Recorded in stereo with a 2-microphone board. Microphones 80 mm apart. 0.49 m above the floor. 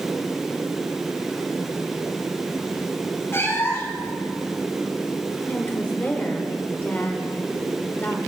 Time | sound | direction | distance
3.3 | a cat meowing | 30° left (ahead or behind) | 1.9 m
5.5 | a woman speaking | 25° left (ahead or behind) | 1.3 m